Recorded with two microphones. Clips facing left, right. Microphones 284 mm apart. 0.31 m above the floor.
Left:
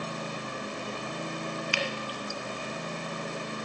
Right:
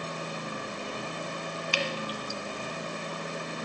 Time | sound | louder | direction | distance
1.7 | dripping | right 1 dB | 45° right (ahead or behind) | 1.6 m